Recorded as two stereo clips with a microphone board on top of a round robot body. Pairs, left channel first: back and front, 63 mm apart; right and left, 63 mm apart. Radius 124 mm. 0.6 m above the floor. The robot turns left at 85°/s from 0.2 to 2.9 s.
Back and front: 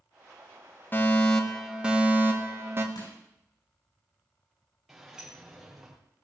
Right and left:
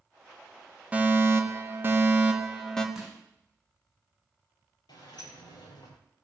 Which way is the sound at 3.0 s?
175° left.